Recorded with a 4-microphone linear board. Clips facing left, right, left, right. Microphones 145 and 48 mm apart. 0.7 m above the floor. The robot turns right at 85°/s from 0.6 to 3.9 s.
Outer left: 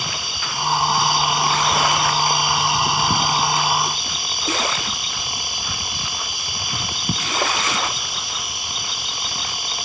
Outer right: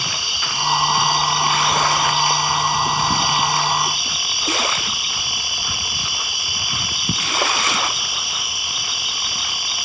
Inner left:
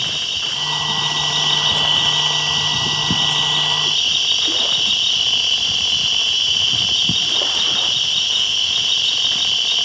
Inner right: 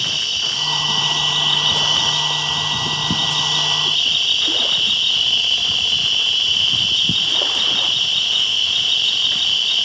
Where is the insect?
95° right, 0.7 m; by 9.8 s 175° right, 0.7 m.